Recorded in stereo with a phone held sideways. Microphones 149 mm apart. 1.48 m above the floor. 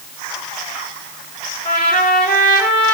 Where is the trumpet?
65° left (ahead or behind), 4.5 m.